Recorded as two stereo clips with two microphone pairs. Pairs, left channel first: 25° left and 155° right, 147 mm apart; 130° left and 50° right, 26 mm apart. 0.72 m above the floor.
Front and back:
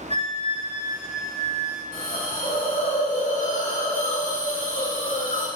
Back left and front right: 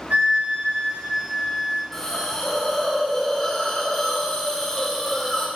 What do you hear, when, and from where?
0.1 s a flute: 25° right, 4 m
1.9 s a hiss: 50° left, 2.5 m